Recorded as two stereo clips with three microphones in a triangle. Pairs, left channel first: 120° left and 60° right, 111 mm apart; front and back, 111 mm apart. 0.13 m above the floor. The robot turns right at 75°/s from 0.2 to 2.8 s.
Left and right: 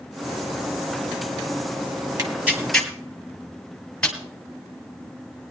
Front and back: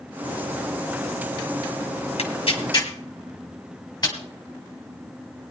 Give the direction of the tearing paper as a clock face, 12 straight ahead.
12 o'clock.